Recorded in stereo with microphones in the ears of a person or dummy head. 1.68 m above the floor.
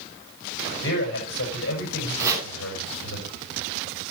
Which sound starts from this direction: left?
A man speaking, at 0.8 s.